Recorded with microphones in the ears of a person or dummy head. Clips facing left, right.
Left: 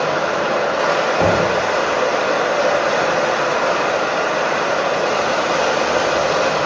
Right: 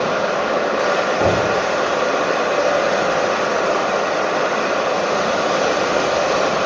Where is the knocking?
80° left, 4 m.